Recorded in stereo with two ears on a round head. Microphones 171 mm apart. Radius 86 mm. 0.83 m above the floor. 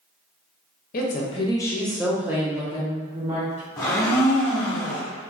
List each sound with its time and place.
0.9 s a woman speaking: 45° left (ahead or behind), 0.6 m; by 3.7 s 35° right (ahead or behind), 1.3 m
3.8 s a blender: 20° left (ahead or behind), 0.9 m